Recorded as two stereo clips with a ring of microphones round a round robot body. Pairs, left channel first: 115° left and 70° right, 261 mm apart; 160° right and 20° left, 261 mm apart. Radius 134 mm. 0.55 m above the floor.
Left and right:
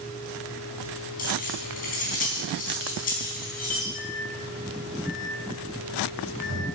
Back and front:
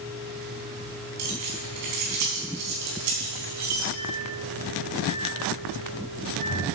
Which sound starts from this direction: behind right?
A microwave, at 4.0 s.